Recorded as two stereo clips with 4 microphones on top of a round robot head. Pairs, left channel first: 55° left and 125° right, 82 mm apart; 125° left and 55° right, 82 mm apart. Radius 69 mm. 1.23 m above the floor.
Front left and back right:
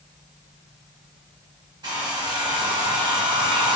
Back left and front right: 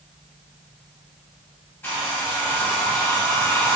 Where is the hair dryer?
165° right, 1.3 m.